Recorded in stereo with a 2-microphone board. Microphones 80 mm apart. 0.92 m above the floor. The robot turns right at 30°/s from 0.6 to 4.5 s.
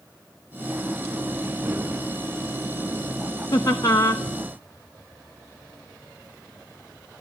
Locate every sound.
3.5 s laughter: 50° left (ahead or behind), 0.8 m; by 4.2 s 60° left (ahead or behind), 0.8 m